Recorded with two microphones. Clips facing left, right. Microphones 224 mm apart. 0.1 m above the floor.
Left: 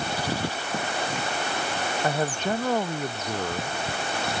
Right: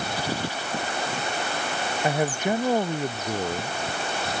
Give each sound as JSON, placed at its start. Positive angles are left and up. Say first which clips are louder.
{"t": 2.0, "sound": "a man speaking", "louder": "right 3 dB", "side_deg": -15}